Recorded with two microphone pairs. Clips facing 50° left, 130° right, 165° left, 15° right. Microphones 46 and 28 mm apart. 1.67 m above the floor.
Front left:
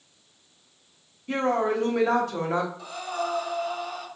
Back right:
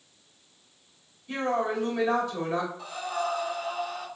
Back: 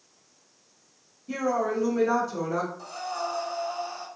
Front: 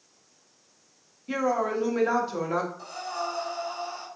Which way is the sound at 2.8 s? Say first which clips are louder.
Even, even; 50° right.